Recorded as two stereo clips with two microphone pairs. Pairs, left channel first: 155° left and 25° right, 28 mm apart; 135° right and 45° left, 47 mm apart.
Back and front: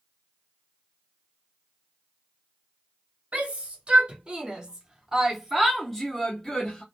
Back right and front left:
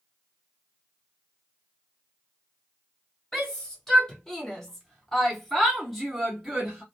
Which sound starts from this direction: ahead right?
A shout, at 3.3 s.